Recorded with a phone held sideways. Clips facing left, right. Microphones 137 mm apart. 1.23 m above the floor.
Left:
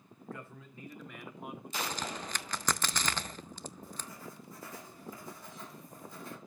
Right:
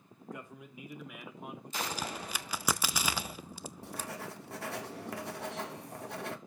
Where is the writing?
65° right (ahead or behind), 1.0 m.